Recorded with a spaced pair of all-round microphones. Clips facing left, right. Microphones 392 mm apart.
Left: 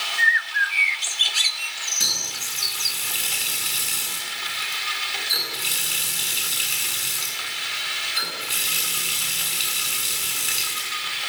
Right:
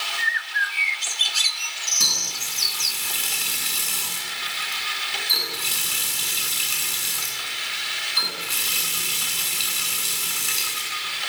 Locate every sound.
0.2 s a bird: 60° right (ahead or behind), 1.3 m
2.0 s a running tap: 10° right (ahead or behind), 9 m